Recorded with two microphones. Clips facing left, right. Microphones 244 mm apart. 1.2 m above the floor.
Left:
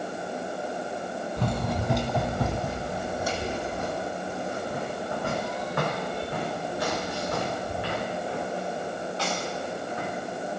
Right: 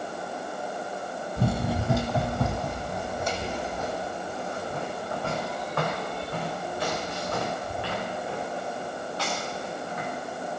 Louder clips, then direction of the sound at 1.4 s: Right 3 dB; 10° right (ahead or behind).